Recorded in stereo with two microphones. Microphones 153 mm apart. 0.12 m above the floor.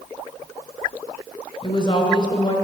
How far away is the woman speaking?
About 1.6 m.